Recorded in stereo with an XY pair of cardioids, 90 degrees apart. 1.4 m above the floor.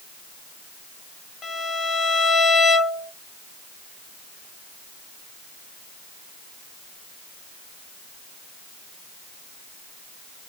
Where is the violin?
60° left, 1.1 m.